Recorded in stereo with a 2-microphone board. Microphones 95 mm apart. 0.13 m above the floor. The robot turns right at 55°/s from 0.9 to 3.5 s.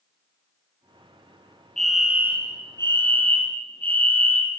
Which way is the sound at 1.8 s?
175° left.